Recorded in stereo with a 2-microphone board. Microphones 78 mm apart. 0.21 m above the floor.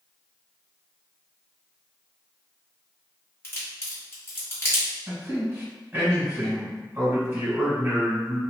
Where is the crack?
30° left (ahead or behind), 1.7 m.